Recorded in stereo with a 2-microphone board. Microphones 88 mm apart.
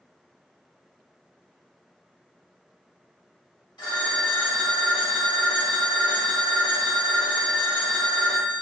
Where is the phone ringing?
55° left (ahead or behind), 1.7 m.